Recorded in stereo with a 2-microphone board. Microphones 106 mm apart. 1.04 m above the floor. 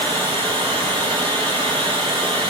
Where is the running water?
75° right (ahead or behind), 7 m.